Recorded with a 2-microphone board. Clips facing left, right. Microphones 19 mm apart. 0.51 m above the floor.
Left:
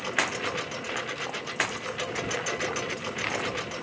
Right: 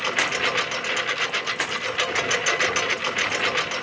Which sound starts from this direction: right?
A lawn mower, at 0.0 s.